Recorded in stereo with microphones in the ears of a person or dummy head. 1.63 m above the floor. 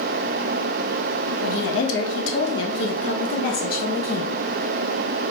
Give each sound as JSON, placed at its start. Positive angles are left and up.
{"t": 1.4, "sound": "a woman speaking", "side_deg": 75, "distance_m": 2.0}